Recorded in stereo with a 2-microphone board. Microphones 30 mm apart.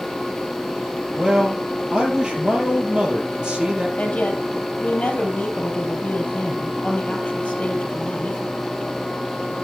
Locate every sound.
1.2 s a man speaking: 25° right (ahead or behind), 3.5 m
4.0 s a woman speaking: 50° left (ahead or behind), 2.5 m